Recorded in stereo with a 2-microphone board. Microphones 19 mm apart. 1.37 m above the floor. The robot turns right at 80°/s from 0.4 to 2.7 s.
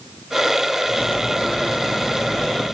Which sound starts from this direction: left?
Cutlery clinking, at 0.9 s.